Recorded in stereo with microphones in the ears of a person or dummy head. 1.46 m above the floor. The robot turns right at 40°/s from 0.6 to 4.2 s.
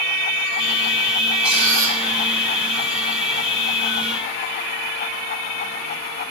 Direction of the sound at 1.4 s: 5° right (ahead or behind).